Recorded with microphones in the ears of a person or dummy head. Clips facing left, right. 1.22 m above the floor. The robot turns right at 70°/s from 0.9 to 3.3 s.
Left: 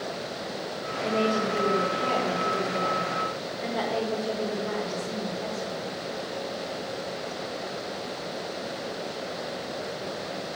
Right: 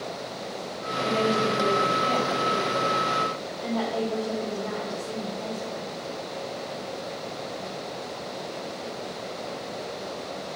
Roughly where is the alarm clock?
No alarm clock in this recording.